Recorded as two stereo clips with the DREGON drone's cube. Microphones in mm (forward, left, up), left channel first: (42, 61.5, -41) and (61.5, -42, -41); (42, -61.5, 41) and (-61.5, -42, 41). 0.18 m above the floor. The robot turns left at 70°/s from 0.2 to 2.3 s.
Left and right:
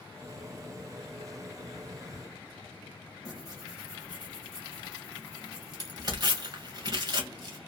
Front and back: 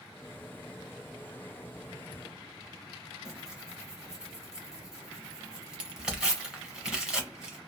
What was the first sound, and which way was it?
Tearing paper, 110° right.